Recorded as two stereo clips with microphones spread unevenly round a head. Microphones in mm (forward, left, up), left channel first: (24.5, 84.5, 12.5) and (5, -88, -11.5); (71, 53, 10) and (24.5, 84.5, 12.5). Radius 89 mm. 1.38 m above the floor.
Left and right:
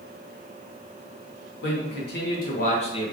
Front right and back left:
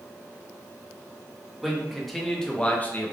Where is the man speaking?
60° left, 1.2 m; by 3.1 s 15° left, 0.7 m.